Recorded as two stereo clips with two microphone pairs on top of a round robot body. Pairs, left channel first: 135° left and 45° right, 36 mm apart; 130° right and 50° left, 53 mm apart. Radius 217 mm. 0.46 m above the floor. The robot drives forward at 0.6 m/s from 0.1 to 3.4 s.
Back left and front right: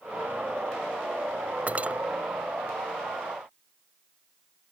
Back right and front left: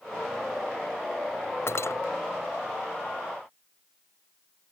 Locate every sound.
1.7 s cutlery clinking: 90° right; by 2.0 s 95° right